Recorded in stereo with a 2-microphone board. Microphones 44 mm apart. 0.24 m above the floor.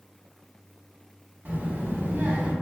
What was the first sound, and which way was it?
A child speaking, 40° right (ahead or behind).